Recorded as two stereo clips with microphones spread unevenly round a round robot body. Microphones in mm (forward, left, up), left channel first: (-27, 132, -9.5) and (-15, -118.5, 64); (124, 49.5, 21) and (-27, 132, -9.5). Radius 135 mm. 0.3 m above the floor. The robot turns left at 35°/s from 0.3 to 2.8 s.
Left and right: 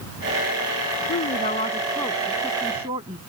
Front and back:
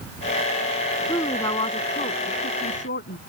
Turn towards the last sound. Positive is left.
turn(degrees=-15)